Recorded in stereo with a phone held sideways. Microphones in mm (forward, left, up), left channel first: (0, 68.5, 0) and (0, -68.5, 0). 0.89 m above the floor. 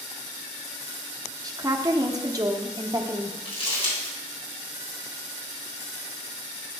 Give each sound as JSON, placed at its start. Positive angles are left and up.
{"t": 1.4, "sound": "a woman speaking", "side_deg": -30, "distance_m": 0.6}
{"t": 3.5, "sound": "crumpling", "side_deg": 50, "distance_m": 3.0}